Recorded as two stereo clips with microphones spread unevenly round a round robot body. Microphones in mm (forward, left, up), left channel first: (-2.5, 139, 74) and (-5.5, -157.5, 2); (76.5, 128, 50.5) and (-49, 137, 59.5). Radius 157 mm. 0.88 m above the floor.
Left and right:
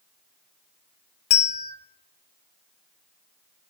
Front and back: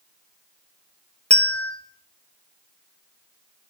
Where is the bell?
70° left, 0.7 m.